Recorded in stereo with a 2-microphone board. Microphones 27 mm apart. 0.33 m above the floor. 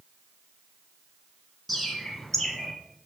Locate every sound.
1.7 s a bird: 5° left (ahead or behind), 1.7 m